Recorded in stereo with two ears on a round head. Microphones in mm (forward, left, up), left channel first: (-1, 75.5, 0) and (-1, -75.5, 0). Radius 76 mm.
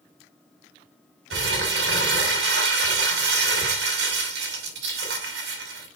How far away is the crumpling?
About 5.5 m.